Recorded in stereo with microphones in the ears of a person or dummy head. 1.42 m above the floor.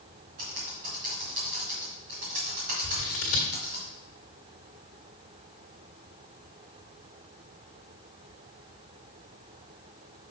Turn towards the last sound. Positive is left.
turn(degrees=40)  # may be behind; listen again after turning